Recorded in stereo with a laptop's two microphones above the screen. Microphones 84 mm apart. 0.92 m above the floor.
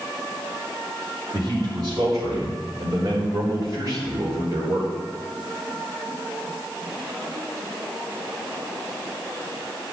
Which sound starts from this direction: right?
A man speaking, at 1.3 s.